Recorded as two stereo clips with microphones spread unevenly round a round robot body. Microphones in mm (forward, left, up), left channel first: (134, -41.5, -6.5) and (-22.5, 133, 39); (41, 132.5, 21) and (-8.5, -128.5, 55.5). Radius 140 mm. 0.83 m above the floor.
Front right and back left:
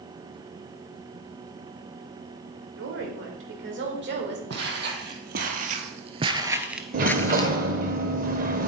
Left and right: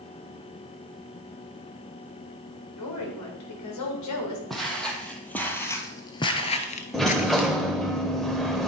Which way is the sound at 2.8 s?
100° left.